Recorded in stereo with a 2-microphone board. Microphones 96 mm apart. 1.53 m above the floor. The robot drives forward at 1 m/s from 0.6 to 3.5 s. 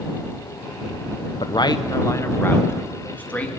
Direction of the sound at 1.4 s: 60° left (ahead or behind).